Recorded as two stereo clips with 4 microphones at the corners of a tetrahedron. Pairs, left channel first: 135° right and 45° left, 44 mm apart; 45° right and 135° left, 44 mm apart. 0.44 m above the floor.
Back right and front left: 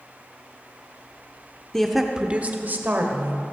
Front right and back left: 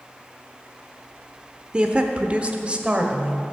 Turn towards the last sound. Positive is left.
turn(degrees=70)